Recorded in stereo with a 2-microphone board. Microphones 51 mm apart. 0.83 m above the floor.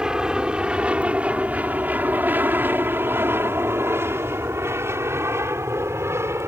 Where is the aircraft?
15° right (ahead or behind); by 6.5 s 60° right (ahead or behind).